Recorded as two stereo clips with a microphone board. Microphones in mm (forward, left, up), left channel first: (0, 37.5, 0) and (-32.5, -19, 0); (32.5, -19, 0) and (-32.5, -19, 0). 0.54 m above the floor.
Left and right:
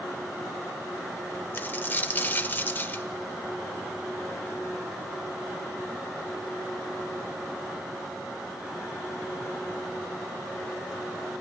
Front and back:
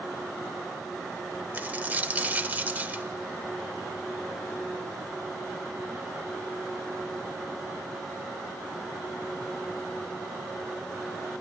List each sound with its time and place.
1.5 s a dropped coin: 120° left, 0.7 m